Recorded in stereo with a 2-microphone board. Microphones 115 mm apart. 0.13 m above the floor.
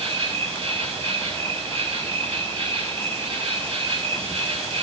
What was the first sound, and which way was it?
An insect, 60° right (ahead or behind).